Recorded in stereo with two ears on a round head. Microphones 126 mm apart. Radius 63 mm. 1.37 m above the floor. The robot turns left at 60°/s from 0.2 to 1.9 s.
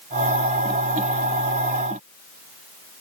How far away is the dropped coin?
No dropped coin in this recording.